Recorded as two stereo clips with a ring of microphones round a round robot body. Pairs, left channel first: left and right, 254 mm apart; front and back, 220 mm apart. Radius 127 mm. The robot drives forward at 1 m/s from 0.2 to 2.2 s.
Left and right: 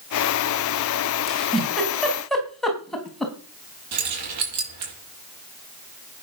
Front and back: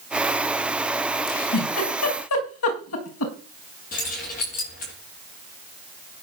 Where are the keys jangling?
60° right, 7 m.